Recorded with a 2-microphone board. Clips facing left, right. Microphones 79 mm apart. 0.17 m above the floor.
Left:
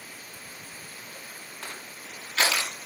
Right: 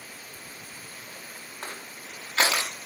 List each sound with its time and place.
1.6 s crushing: 30° right (ahead or behind), 6.5 m